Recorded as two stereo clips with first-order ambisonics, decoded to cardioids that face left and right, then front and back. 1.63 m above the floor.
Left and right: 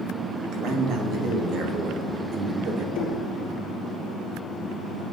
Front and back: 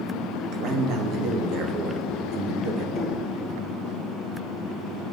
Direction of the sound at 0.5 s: 140° right.